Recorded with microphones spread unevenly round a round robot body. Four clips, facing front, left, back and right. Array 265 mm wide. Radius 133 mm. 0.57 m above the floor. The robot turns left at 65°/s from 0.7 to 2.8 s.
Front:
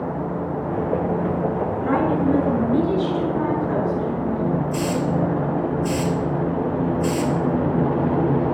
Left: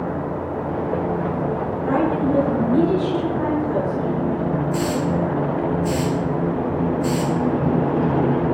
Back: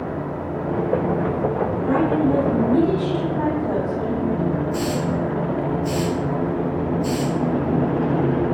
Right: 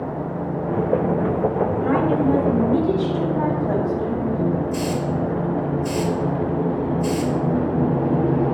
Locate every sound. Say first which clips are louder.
1.8 s a woman speaking: left 1 dB, back 1 dB; 70° right, 4.5 m; by 4.5 s 135° right, 4.5 m
4.7 s a hiss: left 2 dB, front 1 dB; 20° left, 2.5 m